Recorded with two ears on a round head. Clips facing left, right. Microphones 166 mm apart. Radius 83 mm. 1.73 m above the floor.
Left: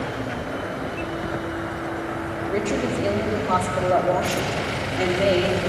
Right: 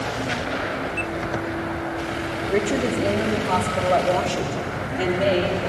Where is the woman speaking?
10° right (ahead or behind), 3.5 m; by 5.6 s 20° left (ahead or behind), 3.5 m.